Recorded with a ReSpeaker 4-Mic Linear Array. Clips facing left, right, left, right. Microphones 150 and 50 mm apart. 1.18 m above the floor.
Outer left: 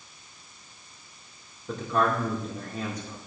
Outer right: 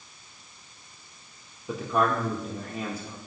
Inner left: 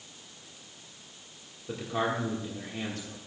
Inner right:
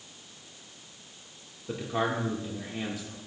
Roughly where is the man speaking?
Centre.